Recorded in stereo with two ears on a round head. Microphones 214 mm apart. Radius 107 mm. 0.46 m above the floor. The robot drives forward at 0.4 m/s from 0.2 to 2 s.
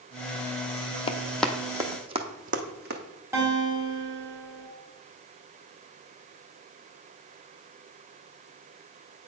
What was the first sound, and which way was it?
Running footsteps, 25° left (ahead or behind).